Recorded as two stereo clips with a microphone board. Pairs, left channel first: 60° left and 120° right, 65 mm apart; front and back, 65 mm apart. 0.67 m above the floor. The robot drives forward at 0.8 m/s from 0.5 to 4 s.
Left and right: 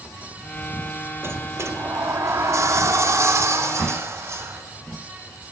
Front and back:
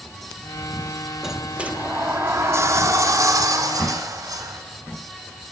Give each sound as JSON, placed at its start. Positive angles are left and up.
{"t": 1.2, "sound": "a sliding door", "azimuth_deg": -95, "distance_m": 1.2}